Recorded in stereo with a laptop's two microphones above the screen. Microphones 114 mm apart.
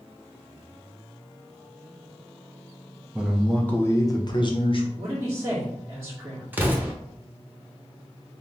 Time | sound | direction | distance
3.1 | a man speaking | 10° right (ahead or behind) | 0.6 m
5.0 | a man speaking | 20° right (ahead or behind) | 1.9 m
6.5 | an explosion | 15° right (ahead or behind) | 0.6 m